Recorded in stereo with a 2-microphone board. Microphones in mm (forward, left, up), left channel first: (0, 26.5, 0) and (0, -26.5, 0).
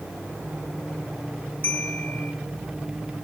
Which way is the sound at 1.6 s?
25° left (ahead or behind).